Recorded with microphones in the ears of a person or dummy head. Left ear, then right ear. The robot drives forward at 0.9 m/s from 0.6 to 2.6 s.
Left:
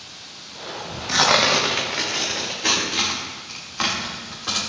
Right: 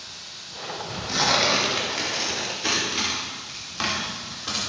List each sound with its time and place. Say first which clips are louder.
0.0 s running water: right 1 dB; 25° right (ahead or behind), 4 m; by 4.7 s 40° right (ahead or behind), 2.5 m
1.1 s tearing paper: left 4 dB; 40° left (ahead or behind), 0.9 m; by 4.6 s 15° left (ahead or behind), 2 m